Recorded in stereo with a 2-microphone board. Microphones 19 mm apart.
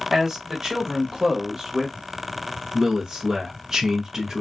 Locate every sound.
0.1 s a man speaking: 20° right (ahead or behind), 1.5 m; by 2.0 s 30° right (ahead or behind), 1.2 m
2.7 s a man speaking: 25° right (ahead or behind), 0.7 m